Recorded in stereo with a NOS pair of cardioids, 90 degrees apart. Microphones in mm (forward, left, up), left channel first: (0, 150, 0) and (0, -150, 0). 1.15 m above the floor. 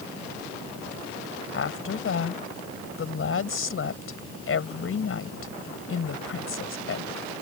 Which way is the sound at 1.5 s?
45° left.